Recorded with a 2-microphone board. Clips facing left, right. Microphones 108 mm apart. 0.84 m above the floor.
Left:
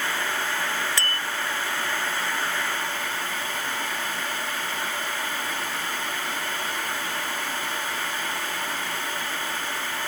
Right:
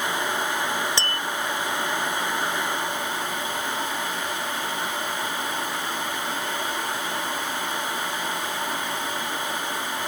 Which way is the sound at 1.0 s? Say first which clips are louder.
Right 1 dB; 25° right (ahead or behind).